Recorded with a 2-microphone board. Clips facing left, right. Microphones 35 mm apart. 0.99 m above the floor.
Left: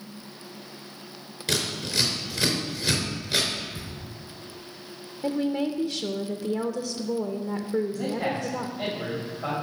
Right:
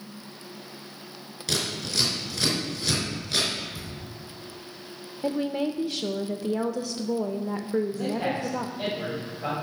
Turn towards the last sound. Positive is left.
turn(degrees=-10)  # may be behind; listen again after turning